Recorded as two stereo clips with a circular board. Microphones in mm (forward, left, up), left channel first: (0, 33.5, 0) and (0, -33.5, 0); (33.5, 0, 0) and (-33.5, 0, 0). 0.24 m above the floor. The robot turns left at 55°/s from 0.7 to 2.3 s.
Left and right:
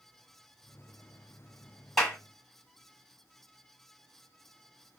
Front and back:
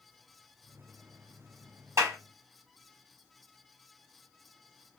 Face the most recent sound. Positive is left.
turn(degrees=155)